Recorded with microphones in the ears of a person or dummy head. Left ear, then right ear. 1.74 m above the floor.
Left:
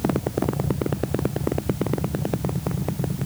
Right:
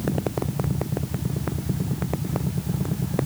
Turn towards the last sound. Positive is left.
No sound to turn to.